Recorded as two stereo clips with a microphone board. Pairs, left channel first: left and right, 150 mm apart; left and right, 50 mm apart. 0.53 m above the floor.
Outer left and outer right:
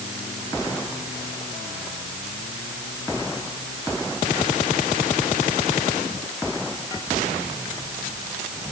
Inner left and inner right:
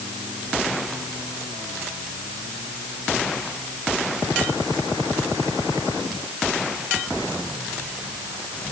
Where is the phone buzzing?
No phone buzzing in this recording.